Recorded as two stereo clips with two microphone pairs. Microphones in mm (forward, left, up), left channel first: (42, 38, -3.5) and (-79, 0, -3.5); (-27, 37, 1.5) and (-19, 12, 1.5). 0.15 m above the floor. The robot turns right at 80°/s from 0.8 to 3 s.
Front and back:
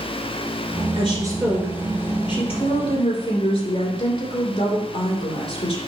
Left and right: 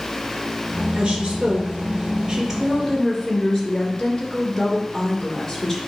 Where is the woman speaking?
130° right, 2.5 m; by 5.8 s 35° left, 2.5 m.